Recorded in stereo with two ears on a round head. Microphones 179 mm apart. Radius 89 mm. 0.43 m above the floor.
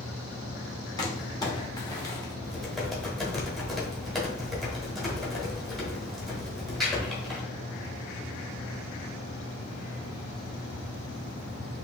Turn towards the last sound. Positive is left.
turn(degrees=0)  # may be behind; listen again after turning